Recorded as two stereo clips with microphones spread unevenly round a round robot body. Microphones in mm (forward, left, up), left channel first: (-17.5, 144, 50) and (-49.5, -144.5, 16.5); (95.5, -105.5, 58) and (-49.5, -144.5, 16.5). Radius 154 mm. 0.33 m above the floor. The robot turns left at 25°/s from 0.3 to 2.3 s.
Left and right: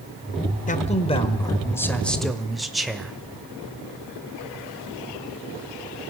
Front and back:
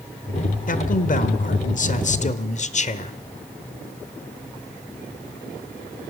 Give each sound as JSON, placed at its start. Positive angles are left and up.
{"t": 0.7, "sound": "a man speaking", "azimuth_deg": 25, "distance_m": 1.3}